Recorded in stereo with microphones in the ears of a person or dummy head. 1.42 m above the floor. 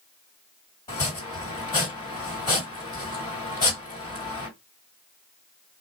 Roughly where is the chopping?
Left.